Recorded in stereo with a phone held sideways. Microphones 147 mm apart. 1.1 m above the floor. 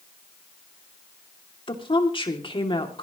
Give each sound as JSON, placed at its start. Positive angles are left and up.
{"t": 1.7, "sound": "a woman speaking", "side_deg": 35, "distance_m": 2.5}